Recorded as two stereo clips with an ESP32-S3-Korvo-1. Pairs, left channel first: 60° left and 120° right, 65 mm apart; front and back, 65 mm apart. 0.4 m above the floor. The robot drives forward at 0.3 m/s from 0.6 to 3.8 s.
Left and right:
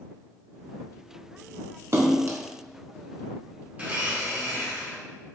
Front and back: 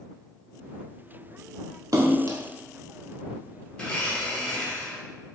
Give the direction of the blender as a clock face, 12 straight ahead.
2 o'clock.